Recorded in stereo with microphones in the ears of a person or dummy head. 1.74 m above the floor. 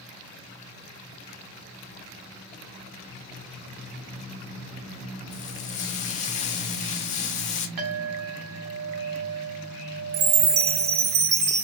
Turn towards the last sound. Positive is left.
turn(degrees=-20)  # may be behind; listen again after turning